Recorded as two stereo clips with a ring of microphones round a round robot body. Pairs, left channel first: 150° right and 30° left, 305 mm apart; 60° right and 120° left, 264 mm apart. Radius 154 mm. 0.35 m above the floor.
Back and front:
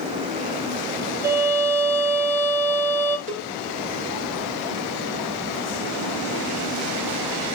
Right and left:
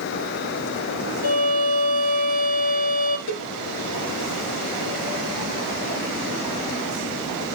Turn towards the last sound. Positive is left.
turn(degrees=-35)